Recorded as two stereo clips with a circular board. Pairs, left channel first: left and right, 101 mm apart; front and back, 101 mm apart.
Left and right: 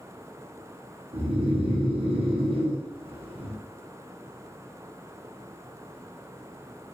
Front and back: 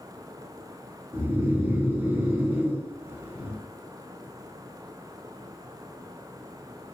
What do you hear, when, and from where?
1.1 s snoring: 115° right, 1.0 m